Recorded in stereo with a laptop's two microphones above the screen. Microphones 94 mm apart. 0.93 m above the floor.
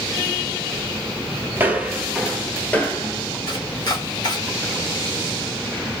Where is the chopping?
45° left (ahead or behind), 1.1 m.